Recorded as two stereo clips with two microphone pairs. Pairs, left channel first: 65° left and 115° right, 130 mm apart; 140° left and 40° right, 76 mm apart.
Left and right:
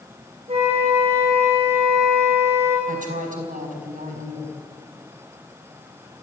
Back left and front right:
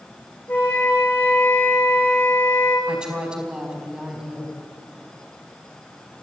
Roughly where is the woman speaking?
Behind right.